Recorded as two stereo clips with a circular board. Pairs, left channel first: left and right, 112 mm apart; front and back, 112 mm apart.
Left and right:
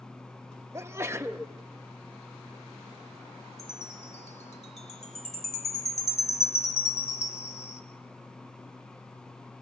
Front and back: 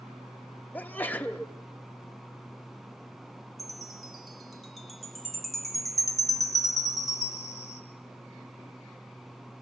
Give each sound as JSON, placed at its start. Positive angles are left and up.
{"t": 0.7, "sound": "a sneeze", "azimuth_deg": -55, "distance_m": 1.1}
{"t": 3.6, "sound": "a chime", "azimuth_deg": 90, "distance_m": 1.6}